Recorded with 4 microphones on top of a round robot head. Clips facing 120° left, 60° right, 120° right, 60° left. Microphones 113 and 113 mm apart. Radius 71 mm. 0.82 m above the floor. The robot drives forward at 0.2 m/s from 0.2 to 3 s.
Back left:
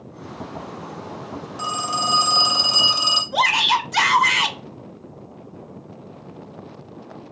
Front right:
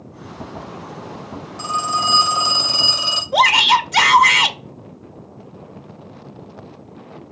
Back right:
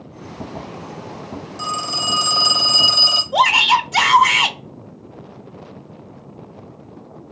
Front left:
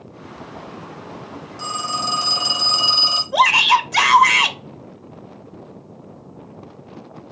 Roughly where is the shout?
Ahead right.